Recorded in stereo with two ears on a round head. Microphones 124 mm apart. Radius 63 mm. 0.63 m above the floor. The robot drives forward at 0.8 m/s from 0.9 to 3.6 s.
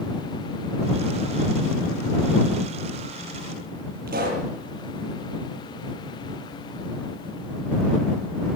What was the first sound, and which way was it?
A pop, 65° right (ahead or behind).